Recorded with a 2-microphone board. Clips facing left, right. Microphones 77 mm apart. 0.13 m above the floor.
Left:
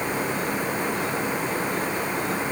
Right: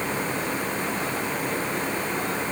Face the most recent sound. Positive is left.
No sound to turn to.